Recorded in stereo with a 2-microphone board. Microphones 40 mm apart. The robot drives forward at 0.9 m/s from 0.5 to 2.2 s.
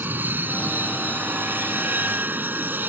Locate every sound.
0.0 s an aircraft: 50° right (ahead or behind)